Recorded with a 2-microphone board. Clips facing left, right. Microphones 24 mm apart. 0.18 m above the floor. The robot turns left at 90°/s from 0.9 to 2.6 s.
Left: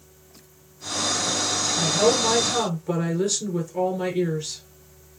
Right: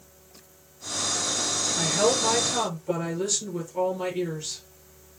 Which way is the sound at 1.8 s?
145° right.